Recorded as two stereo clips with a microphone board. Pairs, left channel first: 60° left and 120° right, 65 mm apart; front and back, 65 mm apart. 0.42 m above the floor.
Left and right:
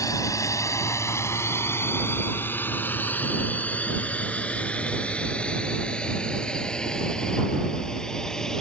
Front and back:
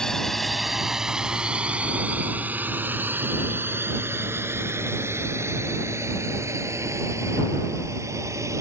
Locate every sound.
0.0 s a drone: 80° left; by 8.6 s 140° left